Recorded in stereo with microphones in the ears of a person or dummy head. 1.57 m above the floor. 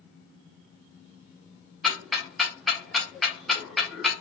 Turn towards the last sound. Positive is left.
turn(degrees=0)  # may be behind; listen again after turning